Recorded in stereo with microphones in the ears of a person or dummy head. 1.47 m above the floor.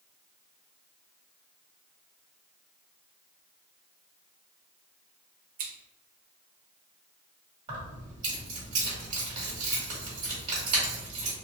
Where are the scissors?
45° right (ahead or behind), 0.7 m.